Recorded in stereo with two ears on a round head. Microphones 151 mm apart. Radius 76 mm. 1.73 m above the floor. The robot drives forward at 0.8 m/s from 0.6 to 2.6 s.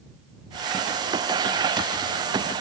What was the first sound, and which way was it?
Only background noise.